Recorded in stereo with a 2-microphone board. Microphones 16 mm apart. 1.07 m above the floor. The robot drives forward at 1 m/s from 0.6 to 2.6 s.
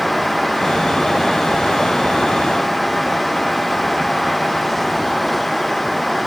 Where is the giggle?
No giggle in this recording.